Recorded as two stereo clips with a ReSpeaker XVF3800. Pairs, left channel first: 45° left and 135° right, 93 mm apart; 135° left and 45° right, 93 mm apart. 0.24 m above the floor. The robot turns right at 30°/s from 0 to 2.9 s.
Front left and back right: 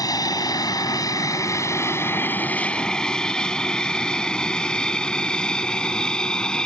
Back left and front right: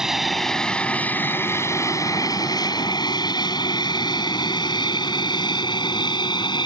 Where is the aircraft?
35° left; by 6.7 s 125° left.